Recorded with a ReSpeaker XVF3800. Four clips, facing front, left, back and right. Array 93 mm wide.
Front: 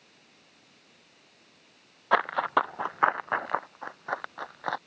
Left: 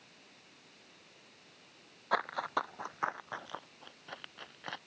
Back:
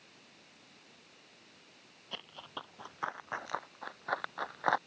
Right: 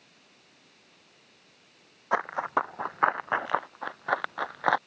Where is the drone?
No drone in this recording.